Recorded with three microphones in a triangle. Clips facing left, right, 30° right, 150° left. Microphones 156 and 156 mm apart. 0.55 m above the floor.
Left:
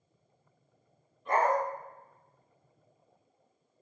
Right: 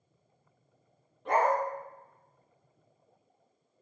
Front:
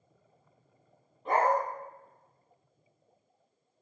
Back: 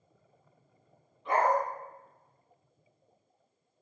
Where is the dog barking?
75° right, 2.5 m.